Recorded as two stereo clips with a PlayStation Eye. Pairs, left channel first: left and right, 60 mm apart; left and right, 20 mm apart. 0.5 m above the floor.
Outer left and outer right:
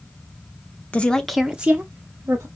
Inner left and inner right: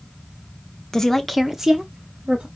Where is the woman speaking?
20° left (ahead or behind), 0.7 m; by 2.5 s 40° right (ahead or behind), 1.1 m.